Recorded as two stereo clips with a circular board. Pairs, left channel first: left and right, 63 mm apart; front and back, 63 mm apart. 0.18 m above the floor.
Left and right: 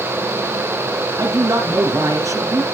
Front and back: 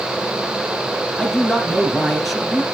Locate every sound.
1.2 s a man speaking: 90° right, 2.5 m